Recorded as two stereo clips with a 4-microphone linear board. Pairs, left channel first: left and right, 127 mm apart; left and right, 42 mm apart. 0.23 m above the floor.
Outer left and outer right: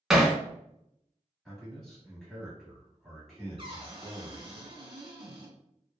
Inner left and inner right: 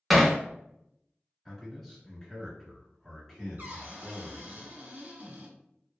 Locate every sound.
0.1 s hammering: centre (ahead or behind), 0.6 m
1.4 s a man speaking: centre (ahead or behind), 1.4 m
3.6 s a cupboard door: 40° right (ahead or behind), 1.6 m